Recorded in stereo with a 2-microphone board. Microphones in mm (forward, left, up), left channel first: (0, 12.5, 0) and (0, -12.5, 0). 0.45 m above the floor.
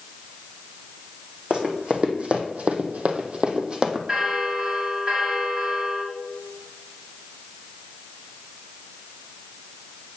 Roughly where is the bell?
Right.